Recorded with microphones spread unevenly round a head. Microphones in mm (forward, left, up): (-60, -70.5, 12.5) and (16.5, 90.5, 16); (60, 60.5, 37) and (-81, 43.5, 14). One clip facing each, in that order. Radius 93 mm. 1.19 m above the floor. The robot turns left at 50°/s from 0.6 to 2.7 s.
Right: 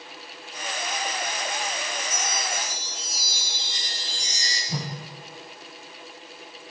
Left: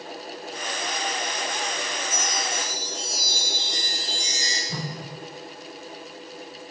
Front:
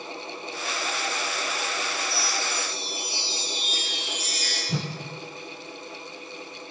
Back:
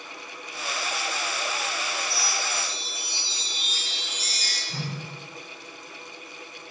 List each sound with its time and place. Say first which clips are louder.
2.0 s a chime: left 2 dB, front 1 dB; 135° right, 2.0 m; by 4.6 s 170° right, 2.0 m
4.7 s a whoosh: right 2 dB, front 4 dB; 35° right, 0.6 m